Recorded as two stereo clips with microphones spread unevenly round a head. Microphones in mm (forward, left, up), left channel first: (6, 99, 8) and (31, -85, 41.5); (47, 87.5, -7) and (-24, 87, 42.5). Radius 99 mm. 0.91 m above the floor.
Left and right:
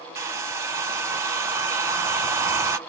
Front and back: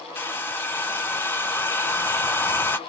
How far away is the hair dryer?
About 0.6 m.